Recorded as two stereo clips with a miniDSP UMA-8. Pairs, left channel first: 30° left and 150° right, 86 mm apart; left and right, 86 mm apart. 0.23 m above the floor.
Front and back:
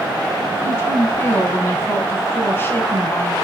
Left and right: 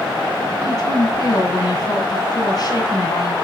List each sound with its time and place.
0.6 s a woman speaking: 80° left, 1.9 m